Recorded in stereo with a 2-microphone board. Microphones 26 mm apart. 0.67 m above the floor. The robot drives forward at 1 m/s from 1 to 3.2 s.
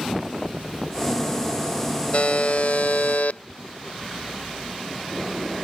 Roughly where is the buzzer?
Left.